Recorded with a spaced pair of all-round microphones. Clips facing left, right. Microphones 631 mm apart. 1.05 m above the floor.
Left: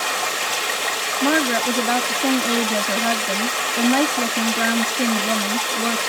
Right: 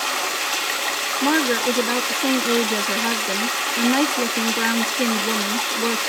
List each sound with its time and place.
0.0 s running water: 65° left (ahead or behind), 4.5 m
1.2 s a woman speaking: 15° left (ahead or behind), 0.6 m